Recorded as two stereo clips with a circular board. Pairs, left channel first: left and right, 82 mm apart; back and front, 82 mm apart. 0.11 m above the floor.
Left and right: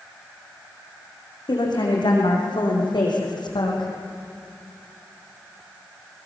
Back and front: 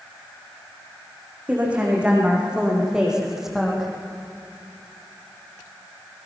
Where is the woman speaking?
75° left, 6.5 m; by 3.9 s 90° left, 4.5 m.